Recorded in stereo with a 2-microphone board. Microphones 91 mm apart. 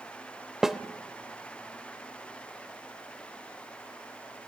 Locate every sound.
0.6 s a snare drum: 5° right (ahead or behind), 0.8 m